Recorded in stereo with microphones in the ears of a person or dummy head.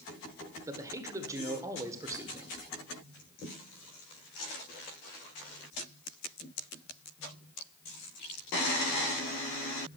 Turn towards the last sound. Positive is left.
turn(degrees=-15)  # may be behind; listen again after turning